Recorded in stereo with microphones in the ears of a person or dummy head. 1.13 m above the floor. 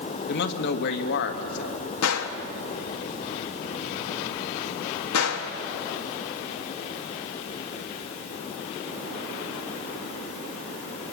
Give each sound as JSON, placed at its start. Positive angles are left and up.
{"t": 0.3, "sound": "a man speaking", "side_deg": 65, "distance_m": 1.8}
{"t": 2.0, "sound": "a gunshot", "side_deg": 80, "distance_m": 1.6}